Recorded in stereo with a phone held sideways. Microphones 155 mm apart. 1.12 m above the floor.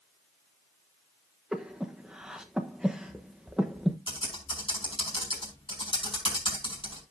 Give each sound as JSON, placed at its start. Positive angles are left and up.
{"t": 1.5, "sound": "breathing", "side_deg": -5, "distance_m": 1.0}
{"t": 4.1, "sound": "typing on a keyboard", "side_deg": 35, "distance_m": 5.0}